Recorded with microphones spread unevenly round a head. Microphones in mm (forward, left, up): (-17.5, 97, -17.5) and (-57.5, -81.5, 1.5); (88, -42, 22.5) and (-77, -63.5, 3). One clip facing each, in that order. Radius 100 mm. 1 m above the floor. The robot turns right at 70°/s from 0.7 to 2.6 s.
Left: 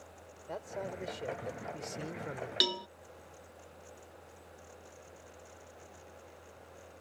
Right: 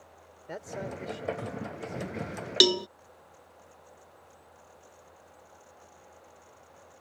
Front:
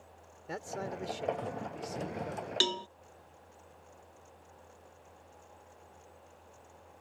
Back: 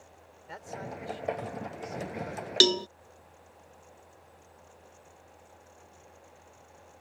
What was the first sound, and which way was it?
A man speaking, 30° right.